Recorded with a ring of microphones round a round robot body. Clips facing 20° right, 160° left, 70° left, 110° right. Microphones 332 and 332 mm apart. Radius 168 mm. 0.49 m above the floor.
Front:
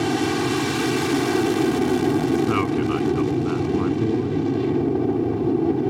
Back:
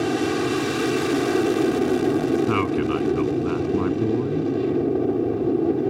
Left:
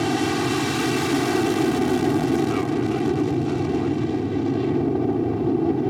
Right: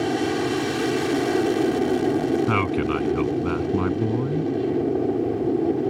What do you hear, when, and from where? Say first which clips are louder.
0.0 s an aircraft: even, left 1 dB; 30° left
2.5 s a man speaking: even, left 1 dB; 115° right